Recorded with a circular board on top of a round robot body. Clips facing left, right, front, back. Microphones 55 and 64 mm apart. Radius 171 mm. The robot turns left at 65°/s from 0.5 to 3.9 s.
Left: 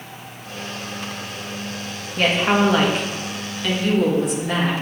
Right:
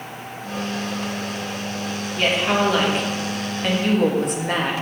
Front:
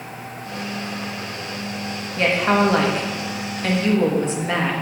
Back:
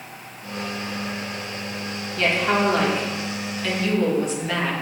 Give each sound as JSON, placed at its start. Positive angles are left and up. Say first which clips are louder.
{"t": 2.2, "sound": "a woman speaking", "louder": "left 2 dB, front 3 dB", "azimuth_deg": 55, "distance_m": 2.0}